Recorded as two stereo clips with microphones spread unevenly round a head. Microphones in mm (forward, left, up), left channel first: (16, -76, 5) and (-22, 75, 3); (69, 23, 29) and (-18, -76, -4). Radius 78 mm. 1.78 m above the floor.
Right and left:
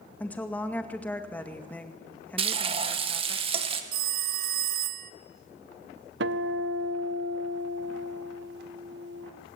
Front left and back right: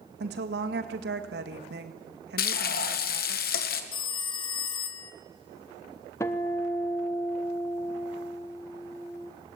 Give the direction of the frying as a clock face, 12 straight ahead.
10 o'clock.